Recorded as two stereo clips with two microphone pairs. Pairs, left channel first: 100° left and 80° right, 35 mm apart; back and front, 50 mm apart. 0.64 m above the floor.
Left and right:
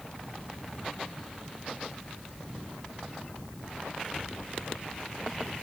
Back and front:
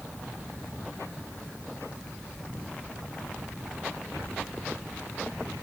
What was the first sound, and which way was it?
Only background noise.